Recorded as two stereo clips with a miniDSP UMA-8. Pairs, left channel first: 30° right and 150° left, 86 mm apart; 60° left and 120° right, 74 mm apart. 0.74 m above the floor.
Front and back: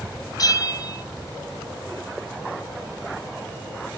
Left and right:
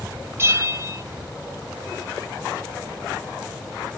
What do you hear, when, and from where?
0.4 s a bell: 70° right, 0.8 m